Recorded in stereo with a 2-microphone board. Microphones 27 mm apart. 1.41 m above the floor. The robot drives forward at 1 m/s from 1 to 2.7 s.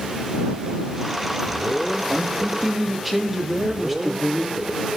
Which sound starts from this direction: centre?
A man speaking, at 2.1 s.